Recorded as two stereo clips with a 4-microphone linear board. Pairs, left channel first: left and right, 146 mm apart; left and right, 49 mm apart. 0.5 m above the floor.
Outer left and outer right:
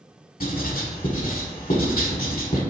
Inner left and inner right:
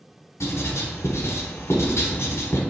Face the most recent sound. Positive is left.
turn(degrees=75)  # may be behind; listen again after turning